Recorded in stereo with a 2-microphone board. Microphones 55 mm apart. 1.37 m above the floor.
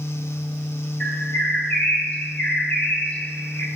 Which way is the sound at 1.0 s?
30° left (ahead or behind).